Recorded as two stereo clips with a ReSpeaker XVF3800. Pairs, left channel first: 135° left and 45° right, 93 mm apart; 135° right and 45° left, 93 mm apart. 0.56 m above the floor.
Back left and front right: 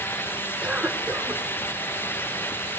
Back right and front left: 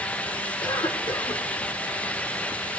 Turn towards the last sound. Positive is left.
turn(degrees=-120)